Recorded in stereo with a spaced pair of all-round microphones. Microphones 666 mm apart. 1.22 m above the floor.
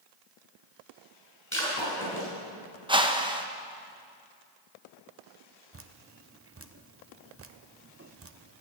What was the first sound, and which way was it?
Breaking glass, 20° left (ahead or behind).